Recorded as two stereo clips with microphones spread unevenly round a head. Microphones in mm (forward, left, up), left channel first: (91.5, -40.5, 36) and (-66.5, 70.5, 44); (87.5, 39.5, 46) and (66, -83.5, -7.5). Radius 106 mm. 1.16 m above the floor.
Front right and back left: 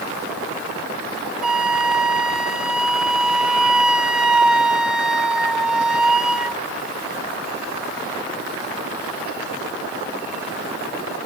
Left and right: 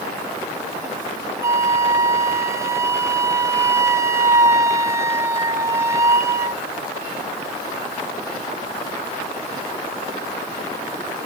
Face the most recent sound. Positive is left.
turn(degrees=-125)